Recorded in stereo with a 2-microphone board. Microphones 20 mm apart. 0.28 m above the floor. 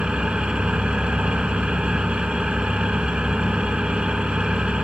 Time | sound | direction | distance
0.0 | an engine running | 65° right (ahead or behind) | 0.8 m